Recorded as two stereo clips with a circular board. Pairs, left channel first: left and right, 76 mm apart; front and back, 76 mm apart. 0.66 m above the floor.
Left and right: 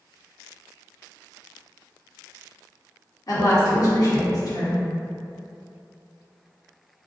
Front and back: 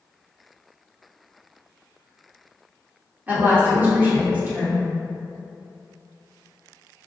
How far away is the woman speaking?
About 1.5 m.